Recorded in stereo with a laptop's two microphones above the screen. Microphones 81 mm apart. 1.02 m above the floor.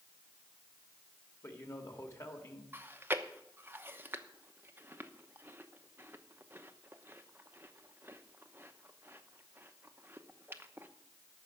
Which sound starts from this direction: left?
A man speaking, at 1.4 s.